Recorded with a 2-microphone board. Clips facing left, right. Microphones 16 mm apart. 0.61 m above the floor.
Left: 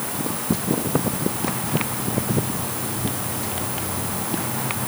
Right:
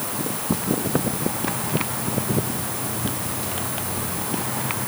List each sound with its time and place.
Only background noise.